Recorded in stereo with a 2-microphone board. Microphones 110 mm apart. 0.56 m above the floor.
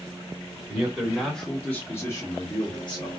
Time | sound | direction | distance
0.7 | a man speaking | 10° right (ahead or behind) | 1.3 m